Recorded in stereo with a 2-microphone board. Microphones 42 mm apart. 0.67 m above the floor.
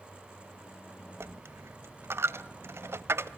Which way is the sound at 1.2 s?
70° right (ahead or behind).